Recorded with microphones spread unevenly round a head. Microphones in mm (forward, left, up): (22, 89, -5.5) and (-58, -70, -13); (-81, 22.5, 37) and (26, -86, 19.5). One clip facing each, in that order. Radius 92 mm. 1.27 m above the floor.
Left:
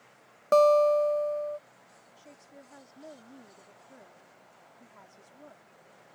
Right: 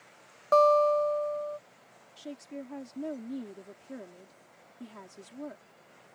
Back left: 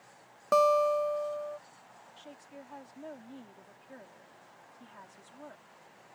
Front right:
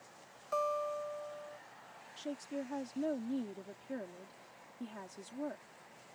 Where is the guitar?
120° left.